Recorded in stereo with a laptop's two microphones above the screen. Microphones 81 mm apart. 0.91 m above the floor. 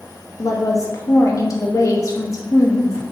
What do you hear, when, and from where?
0.4 s a woman speaking: 40° left (ahead or behind), 0.7 m